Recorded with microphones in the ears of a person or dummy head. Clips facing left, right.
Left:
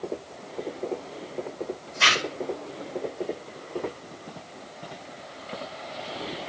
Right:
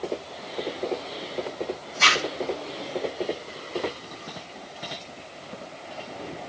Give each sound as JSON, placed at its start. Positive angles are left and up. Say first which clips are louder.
{"t": 2.0, "sound": "a zipper", "louder": "right 2 dB", "side_deg": 5, "distance_m": 1.3}